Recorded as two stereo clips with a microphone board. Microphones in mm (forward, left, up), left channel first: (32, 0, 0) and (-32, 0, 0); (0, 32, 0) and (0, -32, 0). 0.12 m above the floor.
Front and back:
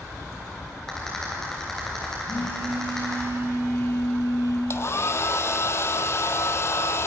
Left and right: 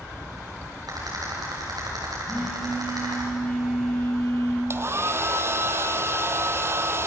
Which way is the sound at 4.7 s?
45° right.